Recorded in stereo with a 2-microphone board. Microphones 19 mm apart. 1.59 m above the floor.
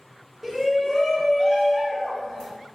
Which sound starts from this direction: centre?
A shout, at 0.4 s.